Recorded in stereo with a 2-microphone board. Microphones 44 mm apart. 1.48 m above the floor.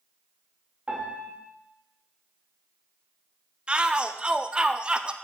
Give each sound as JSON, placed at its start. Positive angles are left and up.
{"t": 0.9, "sound": "a piano", "side_deg": -25, "distance_m": 3.0}
{"t": 3.7, "sound": "a shout", "side_deg": -20, "distance_m": 0.5}